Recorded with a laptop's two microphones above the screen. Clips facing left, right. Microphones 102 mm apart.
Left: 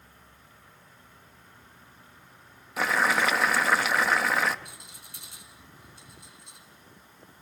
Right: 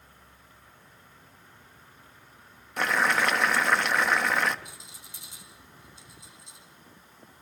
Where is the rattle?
60° left (ahead or behind), 4 m.